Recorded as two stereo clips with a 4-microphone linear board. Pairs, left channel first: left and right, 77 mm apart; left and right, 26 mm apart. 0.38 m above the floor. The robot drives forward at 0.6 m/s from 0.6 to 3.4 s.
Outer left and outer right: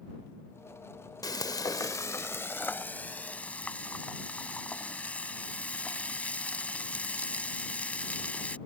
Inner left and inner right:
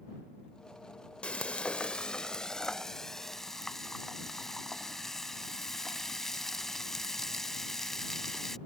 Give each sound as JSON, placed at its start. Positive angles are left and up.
{"t": 1.2, "sound": "frying", "side_deg": 50}